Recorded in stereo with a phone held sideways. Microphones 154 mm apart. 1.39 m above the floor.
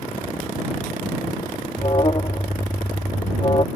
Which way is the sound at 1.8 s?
35° left (ahead or behind).